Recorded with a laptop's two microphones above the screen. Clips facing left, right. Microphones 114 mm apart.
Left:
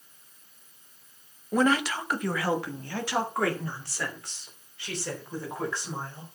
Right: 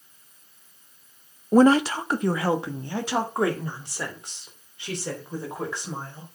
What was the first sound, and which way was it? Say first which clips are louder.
A woman speaking: right 8 dB; 35° right (ahead or behind).